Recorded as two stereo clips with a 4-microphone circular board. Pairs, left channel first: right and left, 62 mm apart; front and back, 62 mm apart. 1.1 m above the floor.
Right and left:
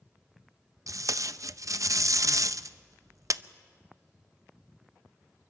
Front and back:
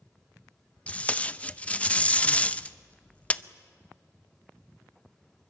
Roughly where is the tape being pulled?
Ahead left.